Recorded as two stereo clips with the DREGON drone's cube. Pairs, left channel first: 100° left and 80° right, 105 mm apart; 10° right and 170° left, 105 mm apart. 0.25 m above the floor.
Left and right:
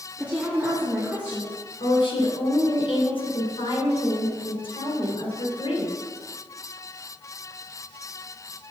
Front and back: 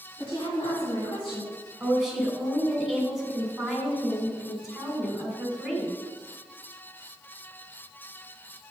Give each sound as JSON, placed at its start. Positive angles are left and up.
{"t": 0.2, "sound": "a woman speaking", "azimuth_deg": -5, "distance_m": 2.5}
{"t": 1.8, "sound": "a woman speaking", "azimuth_deg": 80, "distance_m": 2.5}